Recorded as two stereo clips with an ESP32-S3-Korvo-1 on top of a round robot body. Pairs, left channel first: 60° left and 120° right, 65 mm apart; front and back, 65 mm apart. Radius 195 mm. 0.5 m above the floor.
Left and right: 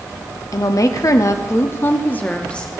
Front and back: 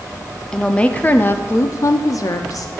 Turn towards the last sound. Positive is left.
turn(degrees=-15)